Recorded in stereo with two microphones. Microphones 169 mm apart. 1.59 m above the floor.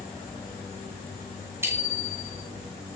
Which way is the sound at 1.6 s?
15° right (ahead or behind).